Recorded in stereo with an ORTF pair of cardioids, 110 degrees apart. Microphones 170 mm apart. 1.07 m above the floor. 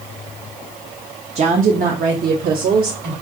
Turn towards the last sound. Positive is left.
turn(degrees=-70)